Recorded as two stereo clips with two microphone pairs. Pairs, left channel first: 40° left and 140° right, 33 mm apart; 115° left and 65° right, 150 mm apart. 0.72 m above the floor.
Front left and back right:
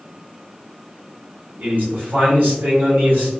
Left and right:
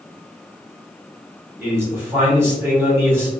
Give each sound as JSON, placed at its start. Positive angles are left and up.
{"t": 1.6, "sound": "a man speaking", "azimuth_deg": -135, "distance_m": 1.6}